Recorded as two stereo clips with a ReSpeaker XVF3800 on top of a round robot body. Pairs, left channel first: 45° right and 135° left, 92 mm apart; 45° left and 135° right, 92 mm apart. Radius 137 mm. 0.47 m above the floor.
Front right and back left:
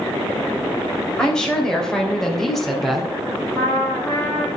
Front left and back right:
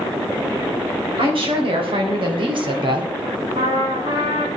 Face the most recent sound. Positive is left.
turn(degrees=-120)